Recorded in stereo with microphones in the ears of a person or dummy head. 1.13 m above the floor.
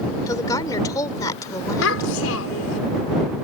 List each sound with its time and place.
0.3 s a woman speaking: 30° left (ahead or behind)
1.8 s a child speaking: 80° left